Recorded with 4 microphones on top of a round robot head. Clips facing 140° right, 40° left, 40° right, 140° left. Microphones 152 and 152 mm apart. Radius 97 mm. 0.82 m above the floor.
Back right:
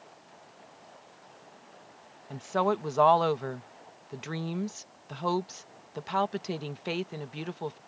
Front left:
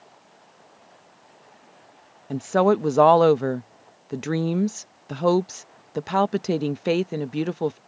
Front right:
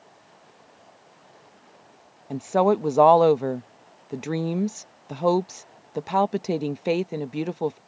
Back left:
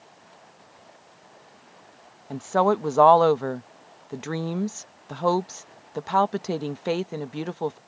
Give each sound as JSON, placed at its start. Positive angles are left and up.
{"t": 2.3, "sound": "a woman speaking", "azimuth_deg": 30}